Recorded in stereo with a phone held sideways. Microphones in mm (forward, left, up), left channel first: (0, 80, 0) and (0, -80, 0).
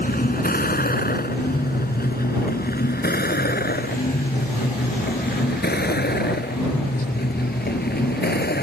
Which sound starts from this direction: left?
A vehicle, at 0.0 s.